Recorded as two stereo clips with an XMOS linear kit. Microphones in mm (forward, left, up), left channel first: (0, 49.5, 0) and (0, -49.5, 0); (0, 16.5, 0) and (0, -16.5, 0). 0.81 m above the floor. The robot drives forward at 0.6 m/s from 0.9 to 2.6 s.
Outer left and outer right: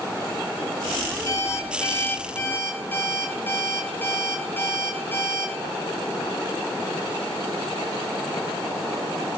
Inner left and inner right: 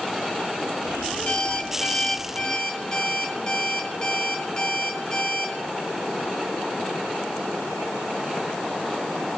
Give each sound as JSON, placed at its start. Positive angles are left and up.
{"t": 1.3, "sound": "an alarm clock", "side_deg": 35, "distance_m": 1.5}